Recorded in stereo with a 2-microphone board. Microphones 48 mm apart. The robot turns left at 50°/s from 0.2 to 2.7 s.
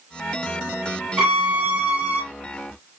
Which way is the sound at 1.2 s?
55° right.